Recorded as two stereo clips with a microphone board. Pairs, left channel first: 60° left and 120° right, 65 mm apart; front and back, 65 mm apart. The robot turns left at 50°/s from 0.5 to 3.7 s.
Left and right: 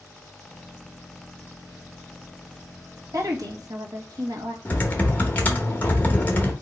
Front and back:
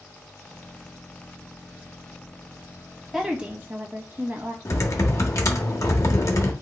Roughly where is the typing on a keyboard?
Ahead.